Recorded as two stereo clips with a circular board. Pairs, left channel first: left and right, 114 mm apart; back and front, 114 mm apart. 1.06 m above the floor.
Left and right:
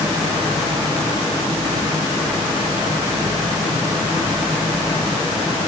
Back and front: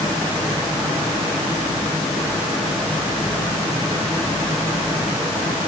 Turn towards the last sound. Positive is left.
No sound to turn to.